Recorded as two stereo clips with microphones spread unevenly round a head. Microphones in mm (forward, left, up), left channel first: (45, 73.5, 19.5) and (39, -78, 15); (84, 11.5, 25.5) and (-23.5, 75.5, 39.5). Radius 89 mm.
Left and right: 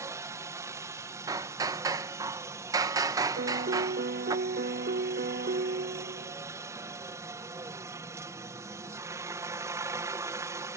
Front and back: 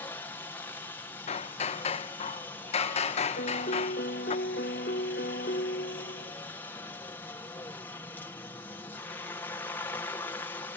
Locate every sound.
0.0 s a helicopter: 60° right
1.3 s hammering: 30° right
3.4 s a piano: 60° right